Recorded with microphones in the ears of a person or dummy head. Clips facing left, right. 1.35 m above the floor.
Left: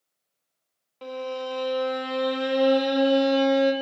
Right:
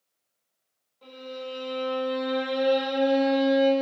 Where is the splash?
I don't hear a splash.